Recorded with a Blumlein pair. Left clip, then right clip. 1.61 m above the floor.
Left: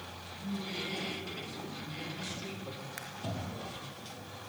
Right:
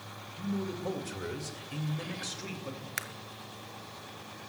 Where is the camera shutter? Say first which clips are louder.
Right 10 dB; 60° right, 0.6 m.